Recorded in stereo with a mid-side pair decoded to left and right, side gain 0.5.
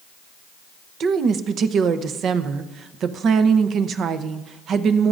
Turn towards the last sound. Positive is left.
turn(degrees=-55)